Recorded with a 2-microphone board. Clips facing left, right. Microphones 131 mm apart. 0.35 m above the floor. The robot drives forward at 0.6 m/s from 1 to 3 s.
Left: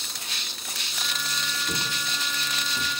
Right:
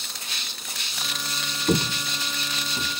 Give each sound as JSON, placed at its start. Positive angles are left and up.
{"t": 1.7, "sound": "footsteps", "side_deg": -50, "distance_m": 1.1}